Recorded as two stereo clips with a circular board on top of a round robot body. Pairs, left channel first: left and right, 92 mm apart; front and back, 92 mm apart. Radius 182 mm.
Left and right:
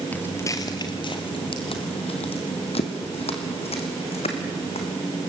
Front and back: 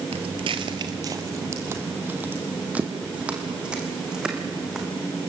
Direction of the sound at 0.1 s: 165° left.